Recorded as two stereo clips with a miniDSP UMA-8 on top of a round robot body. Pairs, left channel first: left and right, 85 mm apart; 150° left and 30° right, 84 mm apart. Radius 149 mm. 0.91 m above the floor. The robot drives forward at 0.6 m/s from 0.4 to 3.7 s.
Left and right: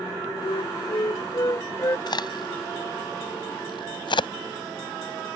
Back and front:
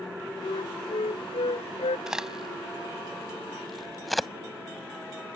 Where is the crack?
55° left; by 4.3 s 60° left.